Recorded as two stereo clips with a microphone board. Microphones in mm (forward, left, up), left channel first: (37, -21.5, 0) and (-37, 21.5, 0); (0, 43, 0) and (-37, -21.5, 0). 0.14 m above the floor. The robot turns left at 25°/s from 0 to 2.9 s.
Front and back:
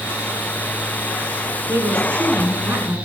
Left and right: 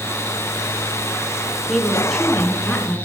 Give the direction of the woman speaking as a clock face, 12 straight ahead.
7 o'clock.